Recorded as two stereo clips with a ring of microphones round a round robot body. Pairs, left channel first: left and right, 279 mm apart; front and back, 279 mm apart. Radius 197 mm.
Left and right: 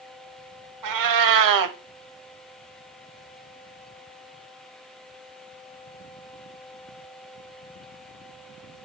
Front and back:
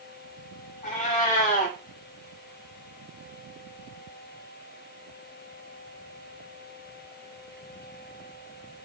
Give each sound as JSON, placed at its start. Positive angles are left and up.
{"t": 0.8, "sound": "a cat meowing", "azimuth_deg": -75, "distance_m": 0.8}